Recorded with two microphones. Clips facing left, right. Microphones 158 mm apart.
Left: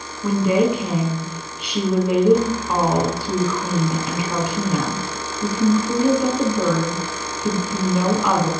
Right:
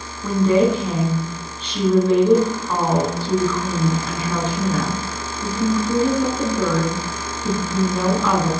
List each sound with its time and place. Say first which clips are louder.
0.2 s a woman speaking: right 1 dB; 10° left (ahead or behind), 1.5 m